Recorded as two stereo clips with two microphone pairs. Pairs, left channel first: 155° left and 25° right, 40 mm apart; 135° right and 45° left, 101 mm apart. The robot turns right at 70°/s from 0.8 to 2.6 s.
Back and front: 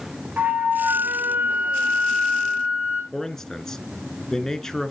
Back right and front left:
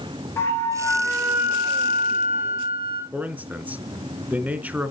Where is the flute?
70° right, 5 m; by 3.0 s 55° left, 5 m.